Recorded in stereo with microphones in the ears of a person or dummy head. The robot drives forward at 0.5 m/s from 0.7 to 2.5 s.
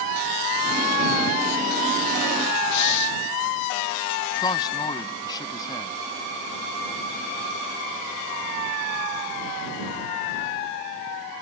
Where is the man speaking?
25° left (ahead or behind).